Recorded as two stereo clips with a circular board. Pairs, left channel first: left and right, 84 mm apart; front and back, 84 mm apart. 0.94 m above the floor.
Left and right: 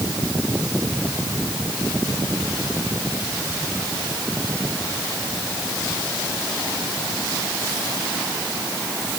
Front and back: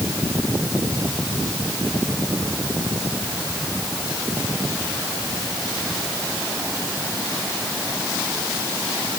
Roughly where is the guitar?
I don't hear a guitar.